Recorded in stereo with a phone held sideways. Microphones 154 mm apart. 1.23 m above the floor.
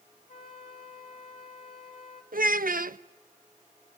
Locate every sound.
0.3 s a flute: 70° left (ahead or behind), 2.5 m
2.3 s a child speaking: 70° right (ahead or behind), 0.6 m